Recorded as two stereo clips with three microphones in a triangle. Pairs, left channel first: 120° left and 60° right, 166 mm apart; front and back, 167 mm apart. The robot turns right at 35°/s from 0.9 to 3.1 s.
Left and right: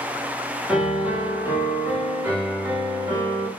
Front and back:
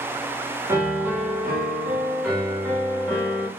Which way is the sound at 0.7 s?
130° right.